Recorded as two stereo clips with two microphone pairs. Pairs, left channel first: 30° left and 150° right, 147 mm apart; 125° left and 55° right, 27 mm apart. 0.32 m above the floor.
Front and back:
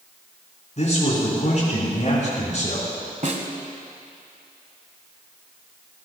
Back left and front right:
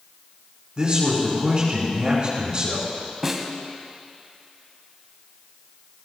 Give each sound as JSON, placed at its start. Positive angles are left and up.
{"t": 0.8, "sound": "a man speaking", "azimuth_deg": -5, "distance_m": 4.5}
{"t": 3.2, "sound": "a snare drum", "azimuth_deg": -130, "distance_m": 1.5}